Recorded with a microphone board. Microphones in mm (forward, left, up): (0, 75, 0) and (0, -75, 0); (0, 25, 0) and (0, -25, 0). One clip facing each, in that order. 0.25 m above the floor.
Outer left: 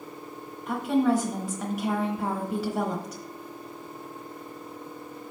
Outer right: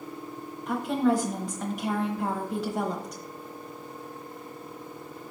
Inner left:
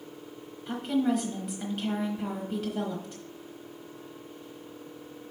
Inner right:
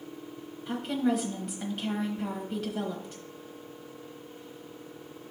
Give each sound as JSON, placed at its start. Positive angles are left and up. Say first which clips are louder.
{"t": 0.7, "sound": "a woman speaking", "louder": "outer left 1 dB, inner left 1 dB", "side_deg": 5, "distance_m": 1.1}